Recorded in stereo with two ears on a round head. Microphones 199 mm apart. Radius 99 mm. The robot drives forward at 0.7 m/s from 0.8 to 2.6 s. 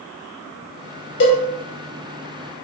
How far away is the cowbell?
About 0.9 m.